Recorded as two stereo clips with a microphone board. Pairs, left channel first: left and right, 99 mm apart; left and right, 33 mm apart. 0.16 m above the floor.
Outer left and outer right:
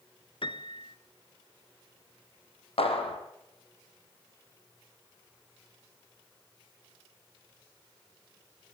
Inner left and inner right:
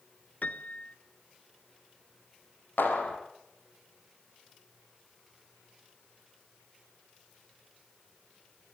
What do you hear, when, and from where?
0.4 s a piano: 60° left (ahead or behind), 1.2 m
2.8 s a clap: 75° left (ahead or behind), 4.5 m